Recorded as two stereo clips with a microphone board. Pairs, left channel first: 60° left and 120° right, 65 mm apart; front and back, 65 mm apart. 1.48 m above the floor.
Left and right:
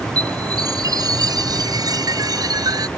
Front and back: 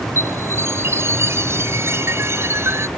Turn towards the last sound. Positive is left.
turn(degrees=-130)